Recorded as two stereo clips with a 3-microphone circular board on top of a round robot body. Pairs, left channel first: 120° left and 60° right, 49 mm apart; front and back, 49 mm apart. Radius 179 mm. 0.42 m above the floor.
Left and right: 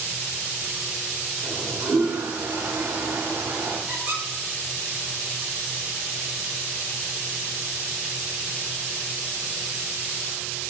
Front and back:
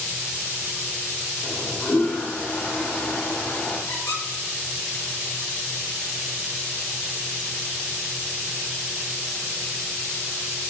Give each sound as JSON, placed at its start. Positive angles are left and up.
{"t": 1.4, "sound": "a toilet flushing", "azimuth_deg": -45, "distance_m": 2.0}
{"t": 3.9, "sound": "a squeak", "azimuth_deg": -5, "distance_m": 3.0}